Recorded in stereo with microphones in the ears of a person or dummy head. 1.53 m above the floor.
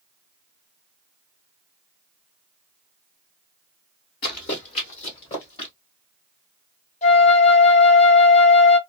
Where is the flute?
40° left (ahead or behind), 0.9 m.